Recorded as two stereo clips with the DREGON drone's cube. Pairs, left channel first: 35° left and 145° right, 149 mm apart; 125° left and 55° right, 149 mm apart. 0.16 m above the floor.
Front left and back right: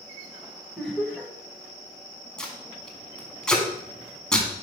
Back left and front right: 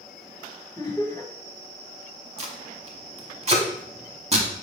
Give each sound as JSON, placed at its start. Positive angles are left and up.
{"t": 0.8, "sound": "laughter", "azimuth_deg": 120, "distance_m": 1.2}
{"t": 2.4, "sound": "tape being pulled", "azimuth_deg": -50, "distance_m": 0.7}